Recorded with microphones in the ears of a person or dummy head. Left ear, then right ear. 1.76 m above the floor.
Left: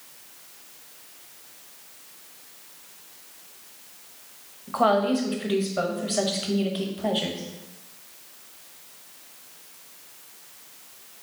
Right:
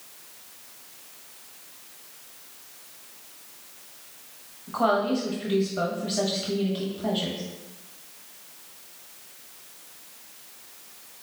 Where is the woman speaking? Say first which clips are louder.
Left 2 dB; 25° left (ahead or behind), 0.7 m.